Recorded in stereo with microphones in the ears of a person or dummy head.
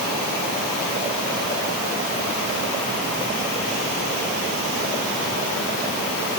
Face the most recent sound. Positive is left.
No sound to turn to.